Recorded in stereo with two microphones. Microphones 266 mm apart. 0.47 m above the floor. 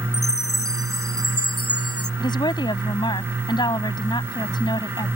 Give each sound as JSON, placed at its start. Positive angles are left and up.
{"t": 0.1, "sound": "a chime", "side_deg": 55}
{"t": 2.2, "sound": "a woman speaking", "side_deg": 15}